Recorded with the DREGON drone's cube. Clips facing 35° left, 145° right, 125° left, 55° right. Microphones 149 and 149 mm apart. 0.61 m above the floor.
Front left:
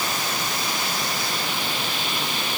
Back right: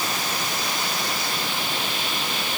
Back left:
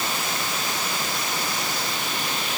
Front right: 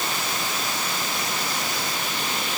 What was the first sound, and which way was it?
Only background noise.